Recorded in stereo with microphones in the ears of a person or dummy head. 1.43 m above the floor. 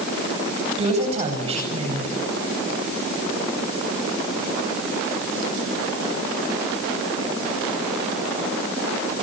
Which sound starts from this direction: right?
A woman speaking, at 0.8 s.